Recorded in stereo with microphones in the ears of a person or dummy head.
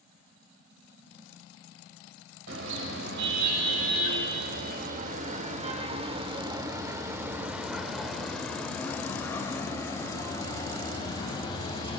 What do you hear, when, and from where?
2.5 s a car horn: 70° right (ahead or behind), 3.5 m; by 12.0 s 30° left (ahead or behind), 5 m